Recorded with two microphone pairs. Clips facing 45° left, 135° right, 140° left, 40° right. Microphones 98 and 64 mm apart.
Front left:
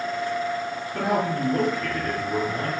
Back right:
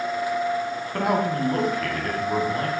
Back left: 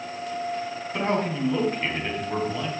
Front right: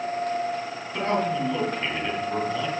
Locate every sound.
0.9 s a man speaking: 145° right, 3 m